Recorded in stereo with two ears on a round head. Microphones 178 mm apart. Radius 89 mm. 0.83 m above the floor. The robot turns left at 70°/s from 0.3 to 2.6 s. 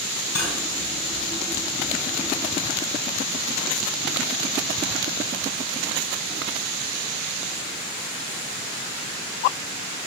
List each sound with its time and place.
0.3 s cutlery clinking: 85° left, 5 m; by 0.6 s 70° left (ahead or behind), 5 m